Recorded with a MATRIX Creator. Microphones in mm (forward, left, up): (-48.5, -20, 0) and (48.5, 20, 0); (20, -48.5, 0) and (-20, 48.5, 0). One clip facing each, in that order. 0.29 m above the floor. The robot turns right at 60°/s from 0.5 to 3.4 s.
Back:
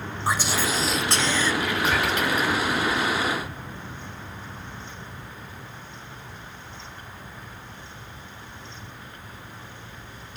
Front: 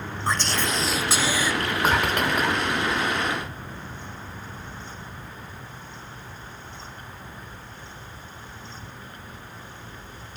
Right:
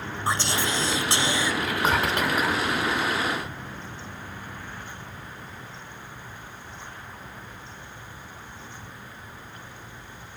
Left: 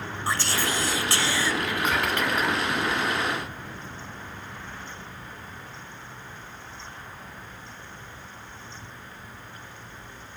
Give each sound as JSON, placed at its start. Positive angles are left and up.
{"t": 0.3, "sound": "whispering", "azimuth_deg": -90, "distance_m": 0.9}
{"t": 1.6, "sound": "whispering", "azimuth_deg": -45, "distance_m": 2.5}